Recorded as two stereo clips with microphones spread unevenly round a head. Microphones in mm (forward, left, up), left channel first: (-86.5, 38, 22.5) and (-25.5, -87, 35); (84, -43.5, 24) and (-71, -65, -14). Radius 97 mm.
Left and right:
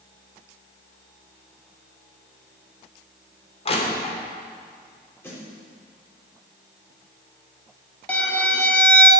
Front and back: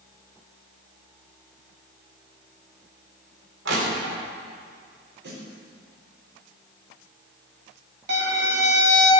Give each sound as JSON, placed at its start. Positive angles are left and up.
{"t": 3.6, "sound": "crushing", "azimuth_deg": 160, "distance_m": 3.0}
{"t": 5.2, "sound": "a snare drum", "azimuth_deg": -170, "distance_m": 4.0}
{"t": 8.1, "sound": "a violin", "azimuth_deg": -165, "distance_m": 1.9}